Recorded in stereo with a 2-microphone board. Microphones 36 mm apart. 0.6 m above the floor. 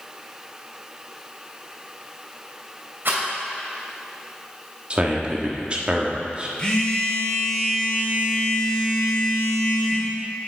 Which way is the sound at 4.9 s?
30° right (ahead or behind).